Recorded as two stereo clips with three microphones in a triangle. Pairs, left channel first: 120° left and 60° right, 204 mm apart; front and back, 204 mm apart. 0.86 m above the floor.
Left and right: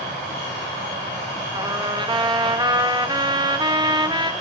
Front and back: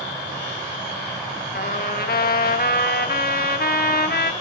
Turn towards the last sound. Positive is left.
turn(degrees=0)